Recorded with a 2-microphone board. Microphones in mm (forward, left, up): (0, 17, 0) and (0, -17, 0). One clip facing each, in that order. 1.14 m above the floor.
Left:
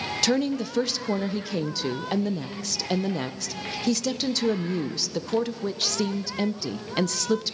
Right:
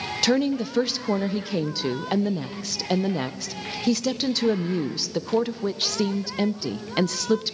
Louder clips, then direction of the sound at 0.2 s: Right 3 dB; 10° right (ahead or behind).